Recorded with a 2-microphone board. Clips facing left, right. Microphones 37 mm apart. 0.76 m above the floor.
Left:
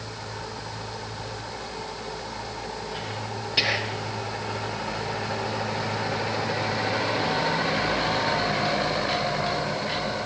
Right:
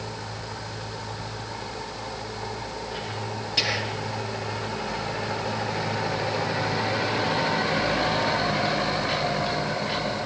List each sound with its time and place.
3.6 s whispering: 15° left (ahead or behind), 1.0 m